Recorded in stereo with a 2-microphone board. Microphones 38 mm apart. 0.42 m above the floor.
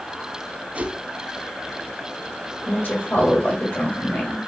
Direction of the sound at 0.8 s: 35° right (ahead or behind).